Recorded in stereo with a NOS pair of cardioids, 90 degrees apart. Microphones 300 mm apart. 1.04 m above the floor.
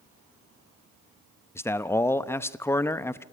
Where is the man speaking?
10° left, 0.9 m.